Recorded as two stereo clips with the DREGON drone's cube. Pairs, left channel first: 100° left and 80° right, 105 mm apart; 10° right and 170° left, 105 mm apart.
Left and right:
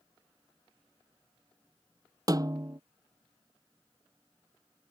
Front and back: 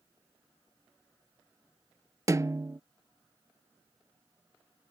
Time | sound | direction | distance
2.3 | a snare drum | 130° right | ?